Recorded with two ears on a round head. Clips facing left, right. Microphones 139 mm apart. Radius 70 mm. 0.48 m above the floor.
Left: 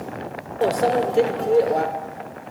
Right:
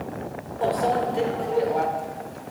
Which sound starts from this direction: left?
A microwave, at 0.6 s.